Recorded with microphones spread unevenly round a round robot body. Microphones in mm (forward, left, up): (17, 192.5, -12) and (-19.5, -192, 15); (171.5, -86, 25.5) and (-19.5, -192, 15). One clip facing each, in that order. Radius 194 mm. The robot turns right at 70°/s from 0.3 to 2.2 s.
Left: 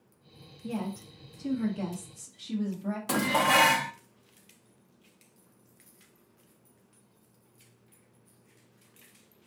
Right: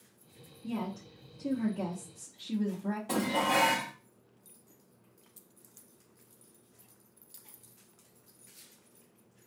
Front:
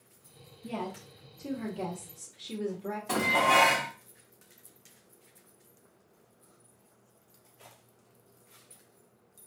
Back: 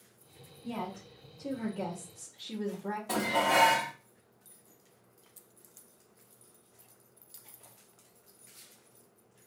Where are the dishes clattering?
115° left, 0.6 m.